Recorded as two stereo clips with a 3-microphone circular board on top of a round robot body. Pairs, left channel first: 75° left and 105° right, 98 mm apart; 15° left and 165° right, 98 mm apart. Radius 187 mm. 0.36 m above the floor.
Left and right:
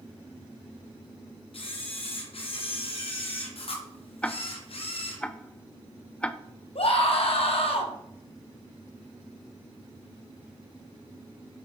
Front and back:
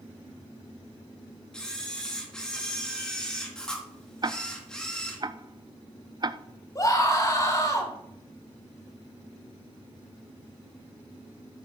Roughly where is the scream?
Left.